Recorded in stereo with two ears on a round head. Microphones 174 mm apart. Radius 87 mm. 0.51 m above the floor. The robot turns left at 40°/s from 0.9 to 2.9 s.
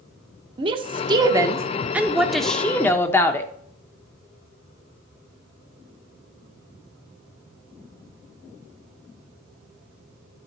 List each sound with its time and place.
0.6 s a woman speaking: 125° right, 0.8 m; by 3.5 s 155° left, 0.8 m